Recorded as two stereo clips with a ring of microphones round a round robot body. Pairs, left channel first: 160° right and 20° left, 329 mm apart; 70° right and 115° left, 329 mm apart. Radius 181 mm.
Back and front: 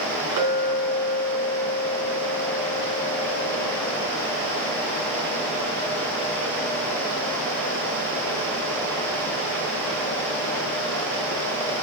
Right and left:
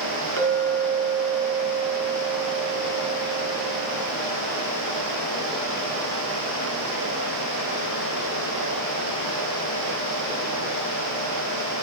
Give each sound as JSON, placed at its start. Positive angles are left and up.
{"t": 0.4, "sound": "a clink", "azimuth_deg": 60, "distance_m": 3.5}